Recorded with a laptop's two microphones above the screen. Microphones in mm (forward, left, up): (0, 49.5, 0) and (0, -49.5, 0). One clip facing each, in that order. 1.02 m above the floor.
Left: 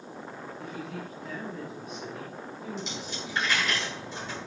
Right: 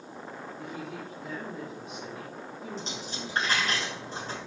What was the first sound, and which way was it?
A woman speaking, 35° right (ahead or behind).